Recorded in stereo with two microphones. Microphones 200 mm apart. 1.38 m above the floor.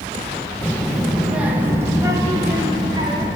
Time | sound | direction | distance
0.6 | a child speaking | 10° left (ahead or behind) | 0.8 m